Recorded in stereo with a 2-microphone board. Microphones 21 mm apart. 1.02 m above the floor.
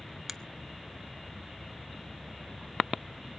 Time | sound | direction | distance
0.3 | a finger snap | 10° right (ahead or behind) | 0.6 m